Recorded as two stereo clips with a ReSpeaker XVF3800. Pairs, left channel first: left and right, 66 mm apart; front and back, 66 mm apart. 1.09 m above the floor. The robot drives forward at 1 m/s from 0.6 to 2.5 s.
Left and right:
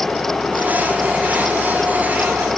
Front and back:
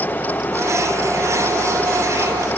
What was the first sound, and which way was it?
Only background noise.